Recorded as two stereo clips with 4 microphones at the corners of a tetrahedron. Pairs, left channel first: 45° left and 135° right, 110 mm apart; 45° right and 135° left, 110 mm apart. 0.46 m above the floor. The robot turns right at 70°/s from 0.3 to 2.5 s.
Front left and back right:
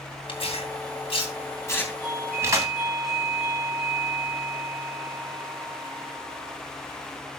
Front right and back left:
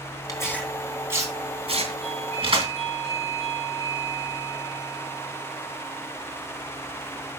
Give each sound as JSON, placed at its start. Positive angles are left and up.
{"t": 0.3, "sound": "tearing paper", "azimuth_deg": 10, "distance_m": 3.0}
{"t": 2.0, "sound": "a doorbell", "azimuth_deg": 105, "distance_m": 8.0}